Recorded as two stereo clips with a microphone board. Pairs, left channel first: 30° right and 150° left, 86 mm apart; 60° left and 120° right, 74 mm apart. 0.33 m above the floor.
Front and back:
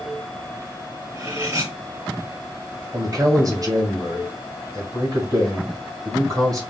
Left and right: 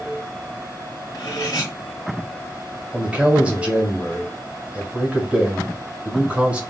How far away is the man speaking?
About 1.9 m.